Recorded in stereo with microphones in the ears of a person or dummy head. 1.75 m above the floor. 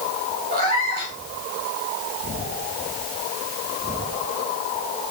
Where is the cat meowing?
50° right (ahead or behind), 2.5 m.